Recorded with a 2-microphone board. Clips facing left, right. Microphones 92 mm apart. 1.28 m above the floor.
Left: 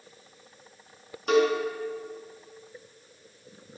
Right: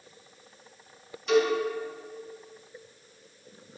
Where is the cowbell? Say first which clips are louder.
Left 1 dB; 55° left (ahead or behind), 2 m.